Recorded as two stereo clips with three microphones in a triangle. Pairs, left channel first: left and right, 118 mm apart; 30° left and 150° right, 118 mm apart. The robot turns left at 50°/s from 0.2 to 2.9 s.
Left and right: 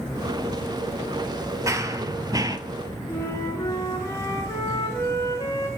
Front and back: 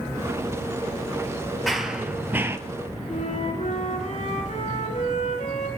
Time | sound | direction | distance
1.7 | running footsteps | 60° right | 1.2 m
3.1 | a flute | 25° left | 3.5 m